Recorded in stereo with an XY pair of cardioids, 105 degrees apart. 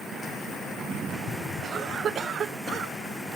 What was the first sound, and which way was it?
A cough, 55° right.